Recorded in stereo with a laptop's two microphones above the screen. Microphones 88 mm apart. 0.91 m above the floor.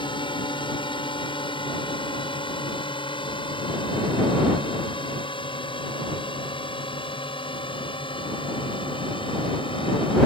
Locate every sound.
0.0 s a drone: 65° left (ahead or behind); by 10.3 s 70° left (ahead or behind)